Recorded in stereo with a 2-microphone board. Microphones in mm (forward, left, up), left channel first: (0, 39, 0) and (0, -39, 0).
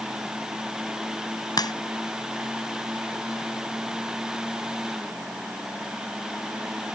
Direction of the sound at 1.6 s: 60° left (ahead or behind).